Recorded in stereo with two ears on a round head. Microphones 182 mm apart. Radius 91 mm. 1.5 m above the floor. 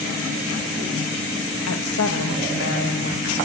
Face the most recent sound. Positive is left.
turn(degrees=50)  # may be behind; listen again after turning